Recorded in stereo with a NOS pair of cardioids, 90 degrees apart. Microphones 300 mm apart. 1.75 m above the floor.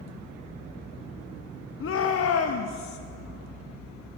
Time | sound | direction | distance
1.8 | a shout | 45° left | 1.3 m